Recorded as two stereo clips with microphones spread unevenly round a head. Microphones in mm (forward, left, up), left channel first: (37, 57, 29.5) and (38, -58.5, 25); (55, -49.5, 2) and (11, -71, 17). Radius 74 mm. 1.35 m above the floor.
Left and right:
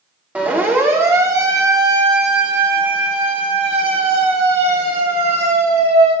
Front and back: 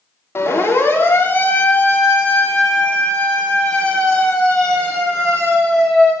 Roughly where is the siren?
Ahead.